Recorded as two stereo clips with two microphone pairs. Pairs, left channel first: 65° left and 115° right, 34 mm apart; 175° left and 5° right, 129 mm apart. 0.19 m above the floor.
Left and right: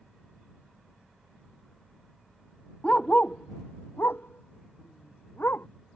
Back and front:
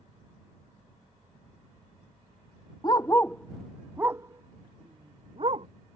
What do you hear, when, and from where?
2.8 s a dog barking: 120° left; by 5.7 s 45° left